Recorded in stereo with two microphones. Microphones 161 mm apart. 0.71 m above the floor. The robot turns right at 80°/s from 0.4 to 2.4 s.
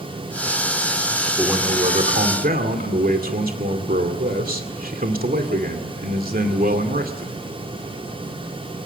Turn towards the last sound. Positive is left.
turn(degrees=-90)